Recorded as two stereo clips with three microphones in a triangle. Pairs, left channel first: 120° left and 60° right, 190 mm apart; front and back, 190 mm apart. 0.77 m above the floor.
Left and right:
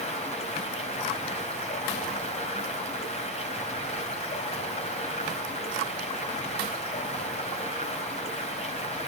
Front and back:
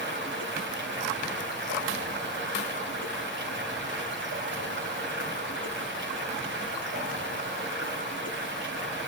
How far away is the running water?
About 2.5 m.